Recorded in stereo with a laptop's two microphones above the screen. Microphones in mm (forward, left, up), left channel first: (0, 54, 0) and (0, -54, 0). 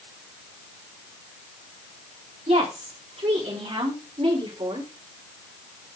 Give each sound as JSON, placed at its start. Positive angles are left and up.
{"t": 2.5, "sound": "a woman speaking", "side_deg": -75, "distance_m": 3.0}